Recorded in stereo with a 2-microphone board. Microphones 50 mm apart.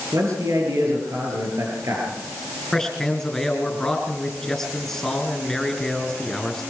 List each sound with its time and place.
0.1 s a man speaking: 80° right, 7 m
2.7 s a man speaking: 10° left (ahead or behind), 4 m